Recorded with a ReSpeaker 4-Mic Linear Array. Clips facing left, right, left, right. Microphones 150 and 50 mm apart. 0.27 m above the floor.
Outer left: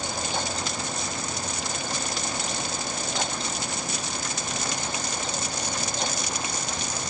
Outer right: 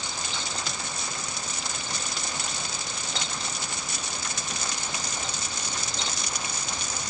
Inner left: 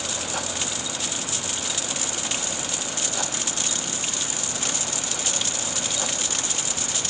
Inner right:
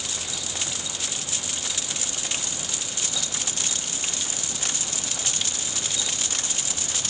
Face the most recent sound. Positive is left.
No sound to turn to.